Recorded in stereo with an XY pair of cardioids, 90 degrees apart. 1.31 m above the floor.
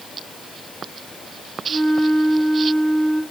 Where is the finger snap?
No finger snap in this recording.